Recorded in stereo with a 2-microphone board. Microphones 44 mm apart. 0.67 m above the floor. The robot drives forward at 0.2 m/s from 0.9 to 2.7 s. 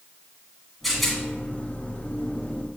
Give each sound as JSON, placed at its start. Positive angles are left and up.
{"t": 0.8, "sound": "a rattle", "side_deg": 5, "distance_m": 1.3}